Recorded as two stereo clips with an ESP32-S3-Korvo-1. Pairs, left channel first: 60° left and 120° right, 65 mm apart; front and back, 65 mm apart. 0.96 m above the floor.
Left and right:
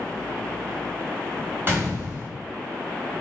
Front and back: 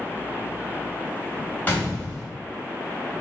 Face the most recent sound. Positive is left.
turn(degrees=-65)